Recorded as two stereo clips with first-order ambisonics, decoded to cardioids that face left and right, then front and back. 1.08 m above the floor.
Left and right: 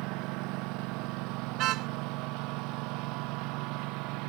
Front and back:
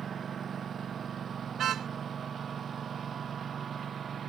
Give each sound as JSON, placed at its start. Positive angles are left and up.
{"t": 0.0, "sound": "a lawn mower", "azimuth_deg": -115}
{"t": 1.6, "sound": "a car horn", "azimuth_deg": -125}